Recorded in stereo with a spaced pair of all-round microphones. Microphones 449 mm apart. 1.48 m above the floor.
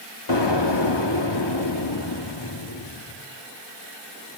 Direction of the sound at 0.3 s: 65° left (ahead or behind).